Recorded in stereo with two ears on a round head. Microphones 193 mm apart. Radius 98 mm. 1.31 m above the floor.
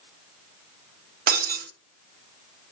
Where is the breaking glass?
45° right (ahead or behind), 1.2 m.